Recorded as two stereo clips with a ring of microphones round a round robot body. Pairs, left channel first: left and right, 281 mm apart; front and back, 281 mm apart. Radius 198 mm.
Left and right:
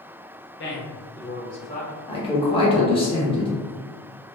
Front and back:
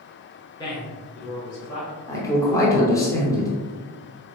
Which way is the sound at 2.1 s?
60° left.